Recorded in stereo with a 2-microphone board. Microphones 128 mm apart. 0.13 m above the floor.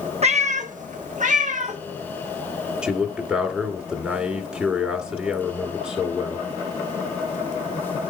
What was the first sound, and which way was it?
A cat meowing, 55° right (ahead or behind).